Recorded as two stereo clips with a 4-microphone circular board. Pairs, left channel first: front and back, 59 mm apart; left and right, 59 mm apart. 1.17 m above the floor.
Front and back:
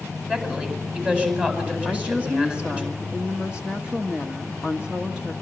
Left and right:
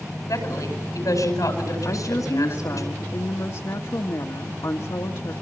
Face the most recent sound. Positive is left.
turn(degrees=105)